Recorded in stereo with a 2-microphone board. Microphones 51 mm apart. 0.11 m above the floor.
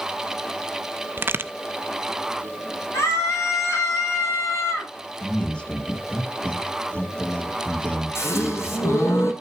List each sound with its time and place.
1.2 s a crack: 45° right (ahead or behind), 0.5 m
2.9 s a scream: 65° left (ahead or behind), 6 m
5.2 s a man speaking: 20° left (ahead or behind), 3 m
8.2 s a gasp: 65° left (ahead or behind), 3.5 m